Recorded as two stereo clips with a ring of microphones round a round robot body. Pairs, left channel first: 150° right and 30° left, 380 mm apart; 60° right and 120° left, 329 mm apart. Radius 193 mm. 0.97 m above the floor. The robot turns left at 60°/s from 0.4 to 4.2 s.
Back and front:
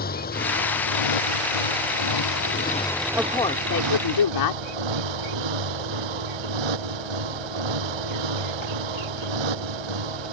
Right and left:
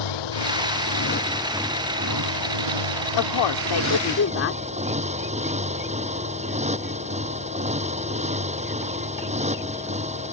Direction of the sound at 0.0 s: 80° right.